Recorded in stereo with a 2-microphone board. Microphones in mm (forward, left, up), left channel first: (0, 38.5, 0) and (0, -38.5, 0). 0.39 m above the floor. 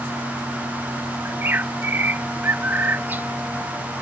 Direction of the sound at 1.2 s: 25° right (ahead or behind).